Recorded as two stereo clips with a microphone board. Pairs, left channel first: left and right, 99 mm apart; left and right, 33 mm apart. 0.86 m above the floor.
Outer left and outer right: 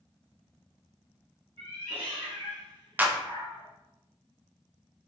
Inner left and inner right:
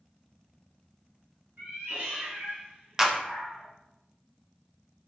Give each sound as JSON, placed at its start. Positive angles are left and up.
{"t": 1.6, "sound": "a cat meowing", "side_deg": -75, "distance_m": 2.0}
{"t": 3.0, "sound": "a clap", "side_deg": -15, "distance_m": 0.6}